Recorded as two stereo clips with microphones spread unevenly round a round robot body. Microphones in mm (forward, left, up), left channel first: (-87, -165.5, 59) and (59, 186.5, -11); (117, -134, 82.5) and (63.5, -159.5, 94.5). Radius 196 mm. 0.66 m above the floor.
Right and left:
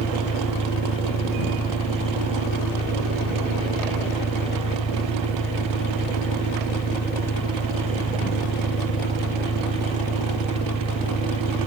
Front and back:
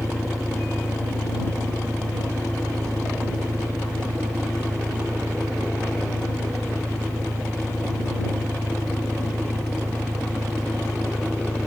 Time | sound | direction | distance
0.0 | an engine running | straight behind | ?